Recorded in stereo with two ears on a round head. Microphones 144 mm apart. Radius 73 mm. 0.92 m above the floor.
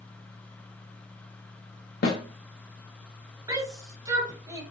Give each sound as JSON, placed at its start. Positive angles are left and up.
{"t": 2.0, "sound": "a snare drum", "side_deg": 60, "distance_m": 1.0}
{"t": 3.5, "sound": "a shout", "side_deg": -20, "distance_m": 1.0}